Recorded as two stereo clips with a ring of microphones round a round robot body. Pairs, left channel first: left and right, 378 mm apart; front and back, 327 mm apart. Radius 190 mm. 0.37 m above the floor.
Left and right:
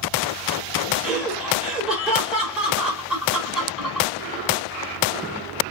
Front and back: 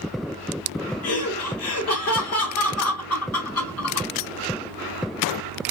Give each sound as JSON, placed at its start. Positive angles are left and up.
{"t": 1.0, "sound": "laughter", "azimuth_deg": -5, "distance_m": 1.2}